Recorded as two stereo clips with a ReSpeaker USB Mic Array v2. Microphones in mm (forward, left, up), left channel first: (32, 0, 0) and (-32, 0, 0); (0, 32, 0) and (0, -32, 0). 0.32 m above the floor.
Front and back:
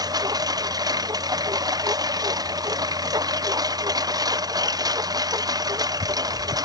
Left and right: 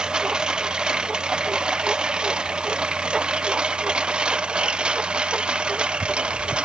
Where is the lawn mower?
170° right; by 6.7 s 165° right.